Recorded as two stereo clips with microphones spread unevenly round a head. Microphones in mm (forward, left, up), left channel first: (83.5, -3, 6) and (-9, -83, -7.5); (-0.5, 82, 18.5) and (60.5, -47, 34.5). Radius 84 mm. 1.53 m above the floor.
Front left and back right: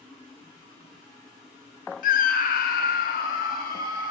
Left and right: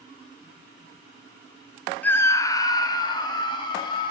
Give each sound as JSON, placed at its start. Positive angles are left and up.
{"t": 2.0, "sound": "a scream", "azimuth_deg": 35, "distance_m": 0.6}